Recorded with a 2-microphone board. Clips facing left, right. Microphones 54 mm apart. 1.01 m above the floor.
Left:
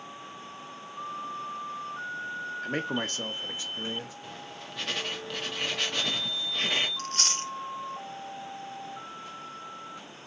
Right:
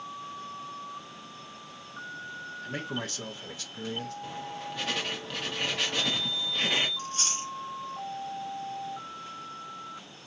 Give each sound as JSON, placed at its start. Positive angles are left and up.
{"t": 2.6, "sound": "a man speaking", "side_deg": 50, "distance_m": 1.1}
{"t": 4.2, "sound": "writing", "side_deg": 0, "distance_m": 1.2}
{"t": 7.0, "sound": "chewing", "side_deg": 65, "distance_m": 0.6}